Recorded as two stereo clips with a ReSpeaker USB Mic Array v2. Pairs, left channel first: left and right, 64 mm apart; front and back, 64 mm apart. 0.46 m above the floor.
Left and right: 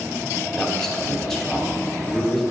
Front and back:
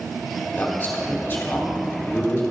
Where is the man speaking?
15° left, 0.9 m.